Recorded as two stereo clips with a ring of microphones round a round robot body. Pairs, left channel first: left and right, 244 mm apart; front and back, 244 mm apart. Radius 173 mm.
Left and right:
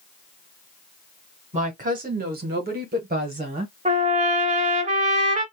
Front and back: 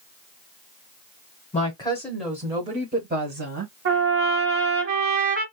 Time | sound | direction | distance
1.5 | a woman speaking | 45° right | 1.0 m
3.9 | a trumpet | 145° right | 1.0 m